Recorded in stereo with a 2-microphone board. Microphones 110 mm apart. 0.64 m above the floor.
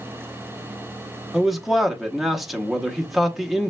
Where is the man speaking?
Centre (ahead or behind), 0.8 m.